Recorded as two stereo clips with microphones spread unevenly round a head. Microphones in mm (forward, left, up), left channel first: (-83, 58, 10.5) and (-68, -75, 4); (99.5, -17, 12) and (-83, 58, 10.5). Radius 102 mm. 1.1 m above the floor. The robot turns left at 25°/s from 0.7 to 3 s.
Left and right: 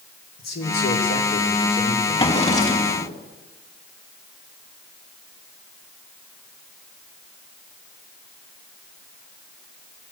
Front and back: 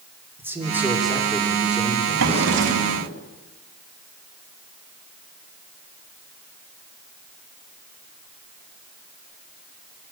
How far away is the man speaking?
About 3.5 m.